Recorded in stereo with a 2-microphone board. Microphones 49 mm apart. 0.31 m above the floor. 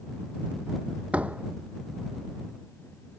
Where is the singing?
I don't hear singing.